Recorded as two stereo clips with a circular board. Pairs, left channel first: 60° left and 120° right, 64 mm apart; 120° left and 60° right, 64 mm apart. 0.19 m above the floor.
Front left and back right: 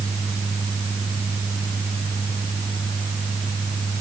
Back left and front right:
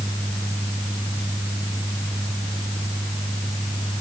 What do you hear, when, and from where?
Only background noise.